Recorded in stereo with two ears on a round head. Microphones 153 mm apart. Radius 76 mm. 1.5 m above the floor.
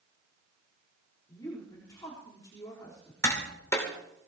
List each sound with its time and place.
1.3 s a woman speaking: 25° left (ahead or behind), 4 m
3.2 s tapping: 20° left (ahead or behind), 2.5 m